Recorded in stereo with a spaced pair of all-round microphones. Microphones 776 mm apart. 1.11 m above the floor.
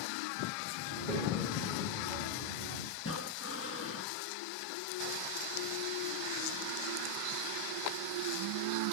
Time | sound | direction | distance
0.9 | a child speaking | 75° right (ahead or behind) | 3 m
3.0 | breathing | 15° left (ahead or behind) | 1.1 m